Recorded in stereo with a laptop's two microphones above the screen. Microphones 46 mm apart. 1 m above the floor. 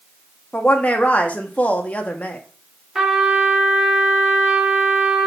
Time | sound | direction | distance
0.5 | a woman speaking | 35° left (ahead or behind) | 1.3 m
3.0 | a trumpet | 15° right (ahead or behind) | 1.6 m